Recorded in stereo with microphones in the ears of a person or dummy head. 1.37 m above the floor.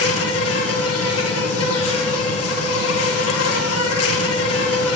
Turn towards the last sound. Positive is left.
turn(degrees=70)  # may be behind; listen again after turning